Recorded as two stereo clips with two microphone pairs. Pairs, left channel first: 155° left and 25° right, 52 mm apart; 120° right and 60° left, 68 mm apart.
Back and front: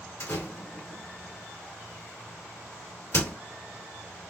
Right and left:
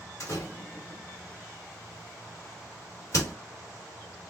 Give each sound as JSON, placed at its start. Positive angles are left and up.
{"t": 0.2, "sound": "a door slam", "azimuth_deg": -170, "distance_m": 1.5}